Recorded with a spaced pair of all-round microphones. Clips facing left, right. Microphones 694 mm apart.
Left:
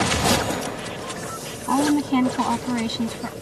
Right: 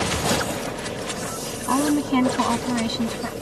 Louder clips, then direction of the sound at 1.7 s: Left 1 dB; 10° right (ahead or behind).